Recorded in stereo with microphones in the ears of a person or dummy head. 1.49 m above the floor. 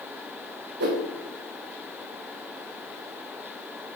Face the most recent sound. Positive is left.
turn(degrees=-65)  # may be behind; listen again after turning